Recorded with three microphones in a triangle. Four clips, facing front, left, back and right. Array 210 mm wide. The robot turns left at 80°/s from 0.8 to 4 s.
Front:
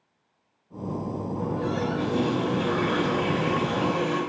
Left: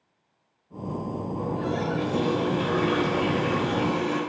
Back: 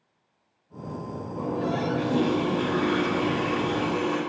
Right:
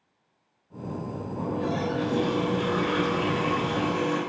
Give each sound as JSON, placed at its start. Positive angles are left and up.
{"t": 1.4, "sound": "a running tap", "azimuth_deg": -145, "distance_m": 3.5}